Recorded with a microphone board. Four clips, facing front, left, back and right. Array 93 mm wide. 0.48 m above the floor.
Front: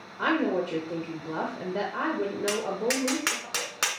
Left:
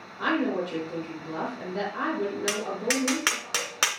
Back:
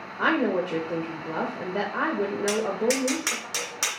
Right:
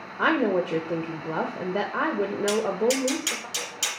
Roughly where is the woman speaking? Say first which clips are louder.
Right 4 dB, back 2 dB; right.